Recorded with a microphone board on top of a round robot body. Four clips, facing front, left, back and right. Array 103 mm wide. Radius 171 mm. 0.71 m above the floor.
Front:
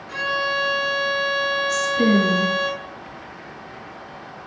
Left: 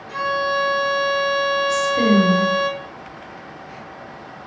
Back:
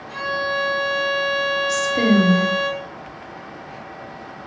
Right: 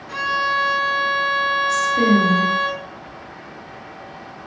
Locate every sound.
0.1 s a violin: 70° right, 1.8 m
1.7 s a woman speaking: straight behind, 1.9 m